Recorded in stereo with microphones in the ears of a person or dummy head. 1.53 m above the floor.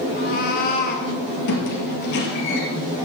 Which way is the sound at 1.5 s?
60° left (ahead or behind).